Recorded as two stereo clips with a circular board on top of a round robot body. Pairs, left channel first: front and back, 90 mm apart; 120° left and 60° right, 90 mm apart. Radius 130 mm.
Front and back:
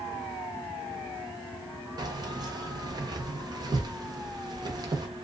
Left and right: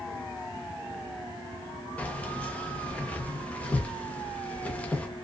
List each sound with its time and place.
2.0 s keys jangling: 170° right, 1.1 m